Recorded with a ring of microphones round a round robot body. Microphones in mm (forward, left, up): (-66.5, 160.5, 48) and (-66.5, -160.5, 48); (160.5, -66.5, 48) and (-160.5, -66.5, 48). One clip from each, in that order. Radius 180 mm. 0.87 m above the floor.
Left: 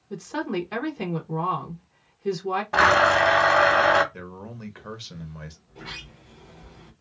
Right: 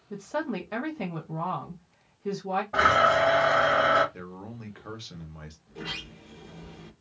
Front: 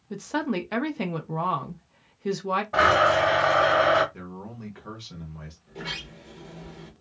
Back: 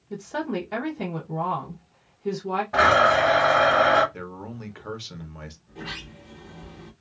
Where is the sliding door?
40° right, 1.4 m.